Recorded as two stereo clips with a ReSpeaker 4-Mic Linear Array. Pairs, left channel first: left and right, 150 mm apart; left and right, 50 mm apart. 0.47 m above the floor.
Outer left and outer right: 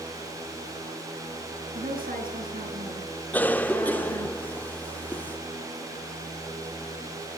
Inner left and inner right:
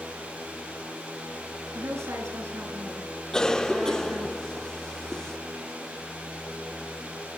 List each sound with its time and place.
1.7 s a woman speaking: 70° right (ahead or behind), 8.5 m
3.3 s a cough: 10° left (ahead or behind), 0.9 m